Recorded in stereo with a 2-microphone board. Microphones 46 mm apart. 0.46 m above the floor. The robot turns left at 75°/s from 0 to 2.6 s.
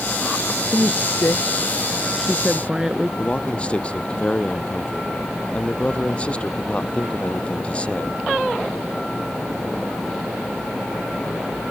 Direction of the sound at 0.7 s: 55° left (ahead or behind).